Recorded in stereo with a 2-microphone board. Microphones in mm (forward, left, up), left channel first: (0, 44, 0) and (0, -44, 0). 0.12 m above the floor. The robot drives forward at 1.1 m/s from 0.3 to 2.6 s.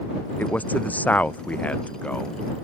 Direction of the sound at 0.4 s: 20° left (ahead or behind).